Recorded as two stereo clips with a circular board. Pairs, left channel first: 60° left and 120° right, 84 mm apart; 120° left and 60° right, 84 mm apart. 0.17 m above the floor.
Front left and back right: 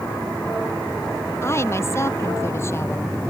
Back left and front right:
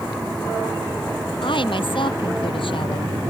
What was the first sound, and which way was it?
A woman speaking, 115° left.